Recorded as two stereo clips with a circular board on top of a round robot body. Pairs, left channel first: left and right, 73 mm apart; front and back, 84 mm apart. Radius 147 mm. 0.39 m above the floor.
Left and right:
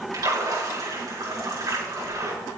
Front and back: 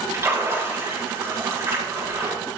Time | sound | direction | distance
0.1 | a splash | 125° right | 5.5 m